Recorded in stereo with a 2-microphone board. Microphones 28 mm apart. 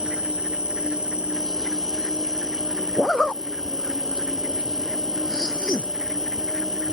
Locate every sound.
0.0 s an insect: 30° right (ahead or behind)
3.0 s a zipper: 30° left (ahead or behind)